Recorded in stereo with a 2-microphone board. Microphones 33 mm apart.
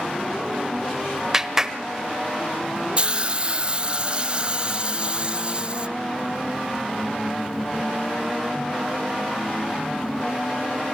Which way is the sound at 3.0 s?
30° right (ahead or behind).